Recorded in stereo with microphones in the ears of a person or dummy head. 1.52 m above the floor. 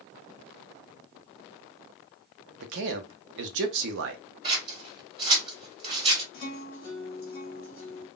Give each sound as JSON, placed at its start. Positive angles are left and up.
{"t": 2.6, "sound": "a man speaking", "side_deg": -60, "distance_m": 0.6}
{"t": 4.4, "sound": "scissors", "side_deg": -35, "distance_m": 1.8}
{"t": 6.3, "sound": "a guitar", "side_deg": 50, "distance_m": 1.3}